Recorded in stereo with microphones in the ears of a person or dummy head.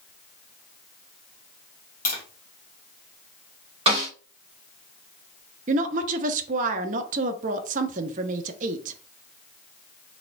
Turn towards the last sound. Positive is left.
turn(degrees=-45)  # may be behind; listen again after turning